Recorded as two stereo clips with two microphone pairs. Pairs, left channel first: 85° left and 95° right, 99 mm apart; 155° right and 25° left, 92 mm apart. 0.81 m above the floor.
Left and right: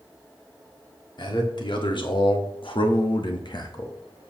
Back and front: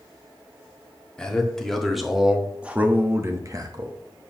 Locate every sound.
1.2 s a man speaking: 125° left, 2 m; by 4.0 s 45° left, 1.1 m